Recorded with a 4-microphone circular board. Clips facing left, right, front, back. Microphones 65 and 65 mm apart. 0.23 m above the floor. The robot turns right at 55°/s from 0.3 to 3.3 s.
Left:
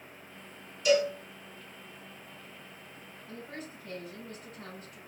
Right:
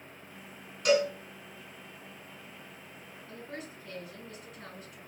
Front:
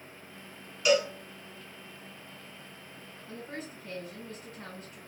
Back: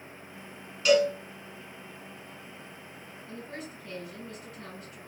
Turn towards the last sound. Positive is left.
turn(degrees=50)